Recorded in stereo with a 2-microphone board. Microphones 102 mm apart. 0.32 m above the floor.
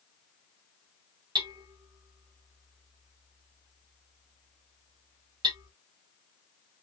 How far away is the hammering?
About 1.5 m.